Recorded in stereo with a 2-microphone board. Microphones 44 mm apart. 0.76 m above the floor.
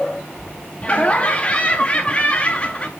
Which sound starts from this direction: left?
Laughter, at 0.8 s.